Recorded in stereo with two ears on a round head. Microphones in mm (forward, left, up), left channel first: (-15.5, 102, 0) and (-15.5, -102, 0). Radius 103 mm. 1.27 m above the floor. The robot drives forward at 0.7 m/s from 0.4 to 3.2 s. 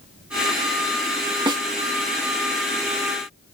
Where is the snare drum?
20° right (ahead or behind).